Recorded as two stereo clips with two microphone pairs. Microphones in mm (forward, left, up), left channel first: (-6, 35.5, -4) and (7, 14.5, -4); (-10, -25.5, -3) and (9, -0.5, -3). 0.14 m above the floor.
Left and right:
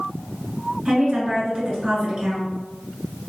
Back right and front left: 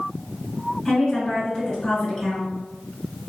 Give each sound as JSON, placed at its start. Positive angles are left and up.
{"t": 0.8, "sound": "a woman speaking", "azimuth_deg": -80, "distance_m": 1.5}